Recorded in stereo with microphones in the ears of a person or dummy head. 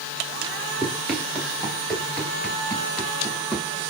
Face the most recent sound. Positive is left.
turn(degrees=5)  # may be behind; listen again after turning